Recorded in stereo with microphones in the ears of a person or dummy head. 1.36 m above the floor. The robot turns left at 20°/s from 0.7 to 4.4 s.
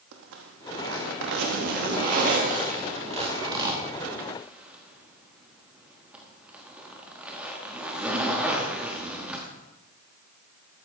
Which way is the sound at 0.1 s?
70° right (ahead or behind).